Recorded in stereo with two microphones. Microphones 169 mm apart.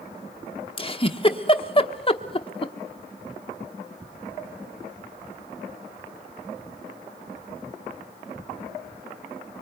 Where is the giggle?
30° left (ahead or behind), 1.0 m.